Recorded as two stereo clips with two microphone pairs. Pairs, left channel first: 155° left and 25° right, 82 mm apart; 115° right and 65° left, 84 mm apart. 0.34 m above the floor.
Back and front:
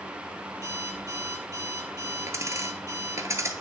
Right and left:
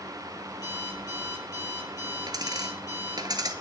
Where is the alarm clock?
75° right, 5 m.